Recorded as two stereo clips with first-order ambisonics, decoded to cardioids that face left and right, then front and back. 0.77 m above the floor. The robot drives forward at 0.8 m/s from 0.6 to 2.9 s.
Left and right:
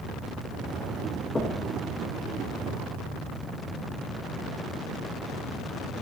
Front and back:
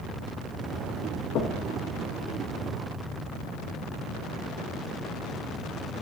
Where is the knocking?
15° left, 1.0 m; by 1.6 s 25° left, 0.9 m.